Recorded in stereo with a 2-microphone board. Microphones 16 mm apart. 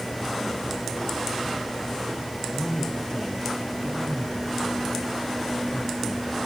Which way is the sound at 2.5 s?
40° left (ahead or behind).